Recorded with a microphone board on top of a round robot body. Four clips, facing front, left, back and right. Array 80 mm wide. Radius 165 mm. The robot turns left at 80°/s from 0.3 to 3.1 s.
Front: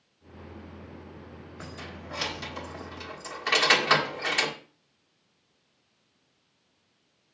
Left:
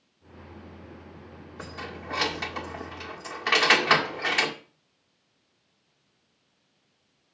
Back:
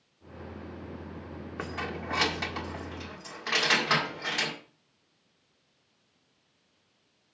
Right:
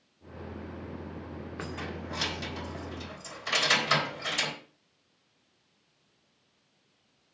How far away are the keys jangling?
About 1.9 m.